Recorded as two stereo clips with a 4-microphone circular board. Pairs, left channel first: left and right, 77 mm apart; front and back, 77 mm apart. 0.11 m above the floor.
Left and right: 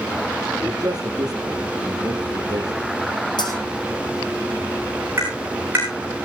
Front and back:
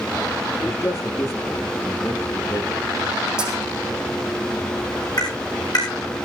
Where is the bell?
100° left, 4.5 m.